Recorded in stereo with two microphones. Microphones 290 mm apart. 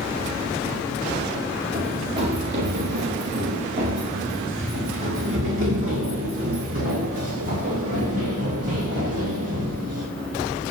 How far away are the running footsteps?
About 6.5 m.